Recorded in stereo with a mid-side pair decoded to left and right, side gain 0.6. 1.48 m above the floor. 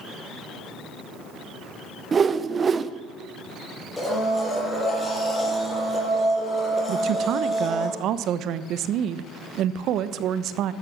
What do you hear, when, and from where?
2.1 s a whoosh: 30° right, 0.8 m
4.0 s a blender: 10° left, 7.5 m
6.9 s a woman speaking: 60° right, 1.0 m